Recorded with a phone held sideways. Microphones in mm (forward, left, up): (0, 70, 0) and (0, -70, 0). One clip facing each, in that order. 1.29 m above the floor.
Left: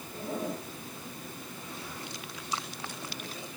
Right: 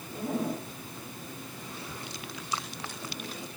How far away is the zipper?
About 4.5 m.